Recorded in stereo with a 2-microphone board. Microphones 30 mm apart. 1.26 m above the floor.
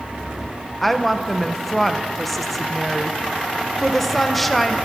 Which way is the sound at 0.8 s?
5° left (ahead or behind).